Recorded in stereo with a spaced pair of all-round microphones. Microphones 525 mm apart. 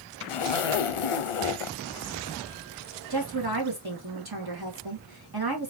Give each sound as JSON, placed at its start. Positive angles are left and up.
{"t": 0.3, "sound": "a zipper", "side_deg": 85, "distance_m": 0.5}
{"t": 3.1, "sound": "a woman speaking", "side_deg": -45, "distance_m": 1.7}